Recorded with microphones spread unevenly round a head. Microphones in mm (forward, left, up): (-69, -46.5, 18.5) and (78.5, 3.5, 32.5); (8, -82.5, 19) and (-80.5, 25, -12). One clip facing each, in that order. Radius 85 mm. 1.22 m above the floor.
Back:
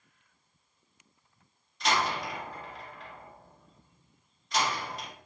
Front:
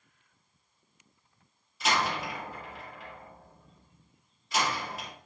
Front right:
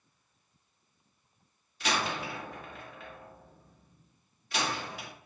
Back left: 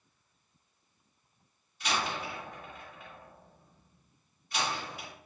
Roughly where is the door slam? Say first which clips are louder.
Even, front right 2 dB; ahead right.